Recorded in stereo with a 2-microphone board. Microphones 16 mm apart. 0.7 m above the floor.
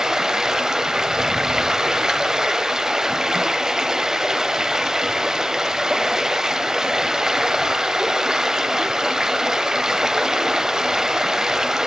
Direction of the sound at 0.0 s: 40° right (ahead or behind).